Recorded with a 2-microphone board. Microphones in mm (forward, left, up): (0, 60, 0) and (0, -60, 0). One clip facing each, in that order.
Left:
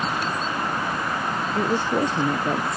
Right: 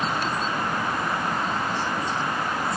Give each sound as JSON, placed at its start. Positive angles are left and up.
{"t": 1.6, "sound": "a woman speaking", "side_deg": 75}